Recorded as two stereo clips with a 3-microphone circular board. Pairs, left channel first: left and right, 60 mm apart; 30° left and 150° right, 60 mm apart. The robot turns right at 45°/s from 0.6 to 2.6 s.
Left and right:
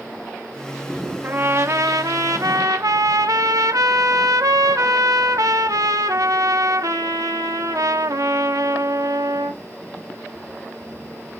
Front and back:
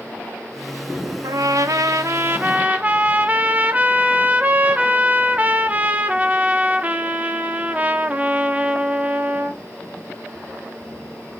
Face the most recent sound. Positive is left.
turn(degrees=-85)